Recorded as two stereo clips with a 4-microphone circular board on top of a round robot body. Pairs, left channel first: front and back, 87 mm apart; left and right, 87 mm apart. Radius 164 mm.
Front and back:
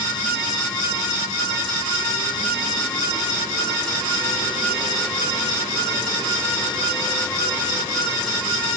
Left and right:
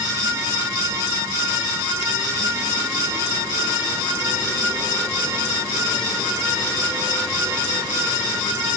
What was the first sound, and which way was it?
Only background noise.